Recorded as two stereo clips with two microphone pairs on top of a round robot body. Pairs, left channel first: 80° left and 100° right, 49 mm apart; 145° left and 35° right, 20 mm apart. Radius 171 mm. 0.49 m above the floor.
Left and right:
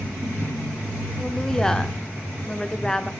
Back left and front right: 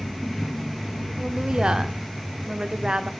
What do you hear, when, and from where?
1.2 s a woman speaking: 10° left, 1.7 m